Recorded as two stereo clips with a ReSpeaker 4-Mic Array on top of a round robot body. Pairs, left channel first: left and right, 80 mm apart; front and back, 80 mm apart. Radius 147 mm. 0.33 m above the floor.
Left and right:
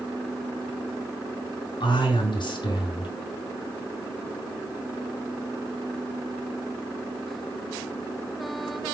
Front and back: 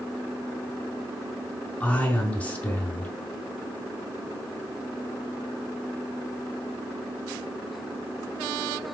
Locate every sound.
1.8 s a man speaking: 75° left, 5.5 m